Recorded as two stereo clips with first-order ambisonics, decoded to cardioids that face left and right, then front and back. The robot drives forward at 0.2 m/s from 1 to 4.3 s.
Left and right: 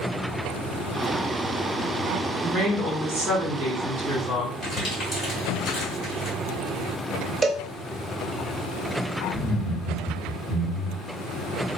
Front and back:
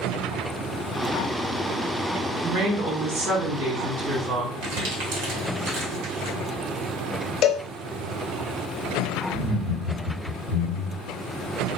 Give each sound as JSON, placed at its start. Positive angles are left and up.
{"t": 2.4, "sound": "a woman speaking", "azimuth_deg": -155, "distance_m": 1.9}
{"t": 4.6, "sound": "crumpling", "azimuth_deg": 160, "distance_m": 1.6}
{"t": 7.4, "sound": "a cowbell", "azimuth_deg": -30, "distance_m": 0.6}
{"t": 9.3, "sound": "laughter", "azimuth_deg": -175, "distance_m": 2.0}